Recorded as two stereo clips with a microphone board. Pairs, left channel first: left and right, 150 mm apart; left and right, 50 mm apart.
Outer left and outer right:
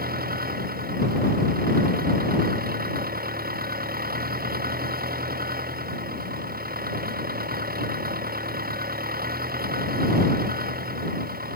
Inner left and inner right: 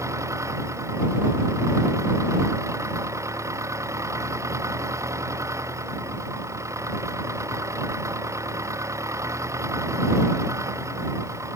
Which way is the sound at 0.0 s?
80° right.